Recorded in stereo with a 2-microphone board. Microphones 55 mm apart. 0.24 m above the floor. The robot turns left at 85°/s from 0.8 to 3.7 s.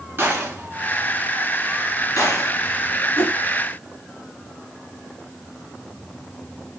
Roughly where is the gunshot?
Right.